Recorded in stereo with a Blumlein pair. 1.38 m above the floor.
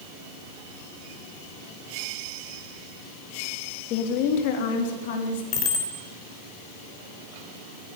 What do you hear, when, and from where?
3.9 s a woman speaking: 40° left, 2.5 m; by 5.4 s 55° left, 3.5 m
5.5 s a bicycle bell: 35° left, 4 m